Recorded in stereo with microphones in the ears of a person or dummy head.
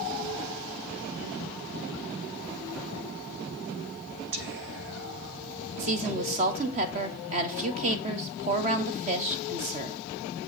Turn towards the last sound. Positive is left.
turn(degrees=-35)  # may be behind; listen again after turning